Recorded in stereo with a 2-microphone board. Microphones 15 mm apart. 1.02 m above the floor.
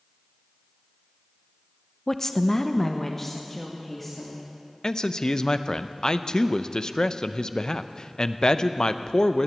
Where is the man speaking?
45° left (ahead or behind), 0.6 m.